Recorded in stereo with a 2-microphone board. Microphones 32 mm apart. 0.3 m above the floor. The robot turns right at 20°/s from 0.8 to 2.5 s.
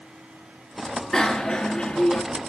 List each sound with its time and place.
1.1 s a bicycle bell: 15° left (ahead or behind), 2.5 m; by 2.2 s 35° left (ahead or behind), 2.5 m